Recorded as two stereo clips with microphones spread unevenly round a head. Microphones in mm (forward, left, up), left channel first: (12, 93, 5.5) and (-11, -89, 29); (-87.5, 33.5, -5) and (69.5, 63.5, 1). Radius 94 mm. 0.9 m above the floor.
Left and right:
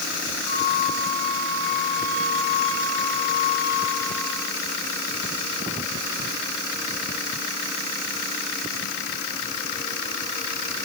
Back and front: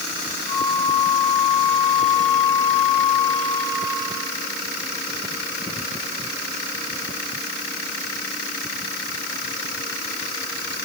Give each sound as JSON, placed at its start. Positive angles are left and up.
{"t": 0.5, "sound": "a flute", "azimuth_deg": -25, "distance_m": 9.0}